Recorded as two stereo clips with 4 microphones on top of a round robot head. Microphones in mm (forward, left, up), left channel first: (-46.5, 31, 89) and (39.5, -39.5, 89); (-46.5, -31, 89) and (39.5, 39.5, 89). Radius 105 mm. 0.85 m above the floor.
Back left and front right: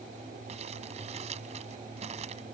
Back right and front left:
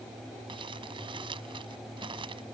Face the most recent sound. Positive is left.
turn(degrees=-10)